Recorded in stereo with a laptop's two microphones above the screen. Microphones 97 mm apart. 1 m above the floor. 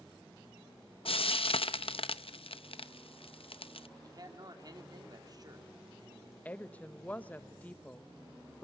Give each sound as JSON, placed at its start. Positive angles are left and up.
{"t": 1.1, "sound": "frying", "side_deg": 70, "distance_m": 0.6}
{"t": 4.0, "sound": "a man speaking", "side_deg": -45, "distance_m": 2.5}
{"t": 6.5, "sound": "a woman speaking", "side_deg": 15, "distance_m": 1.0}